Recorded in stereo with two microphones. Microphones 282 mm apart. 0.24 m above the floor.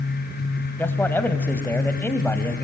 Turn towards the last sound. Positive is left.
turn(degrees=5)  # may be behind; listen again after turning